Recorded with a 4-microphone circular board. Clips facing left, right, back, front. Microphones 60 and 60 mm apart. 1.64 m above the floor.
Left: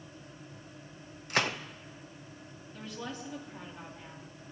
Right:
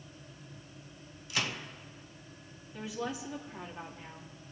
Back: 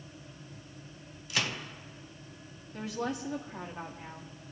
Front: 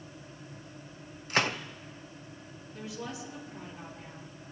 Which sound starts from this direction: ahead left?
A gunshot, at 1.3 s.